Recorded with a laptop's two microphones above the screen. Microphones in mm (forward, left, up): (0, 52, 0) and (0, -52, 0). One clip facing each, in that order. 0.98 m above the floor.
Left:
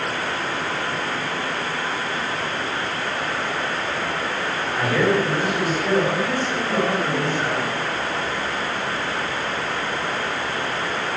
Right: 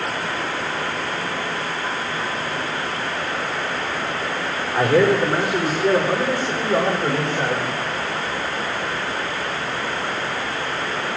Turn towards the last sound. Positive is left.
turn(degrees=-80)